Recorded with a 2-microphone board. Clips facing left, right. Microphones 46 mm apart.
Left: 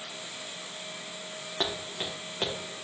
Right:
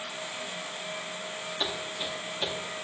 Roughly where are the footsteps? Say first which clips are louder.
Left 2 dB; left.